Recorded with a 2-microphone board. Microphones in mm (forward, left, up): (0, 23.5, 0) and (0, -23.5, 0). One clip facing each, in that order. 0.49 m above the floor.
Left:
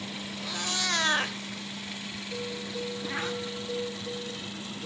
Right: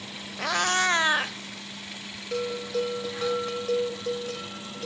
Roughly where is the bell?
Right.